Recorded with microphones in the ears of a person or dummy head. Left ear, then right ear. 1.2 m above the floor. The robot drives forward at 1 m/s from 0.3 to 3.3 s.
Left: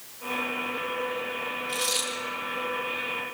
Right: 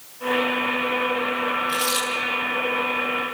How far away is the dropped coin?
About 8 m.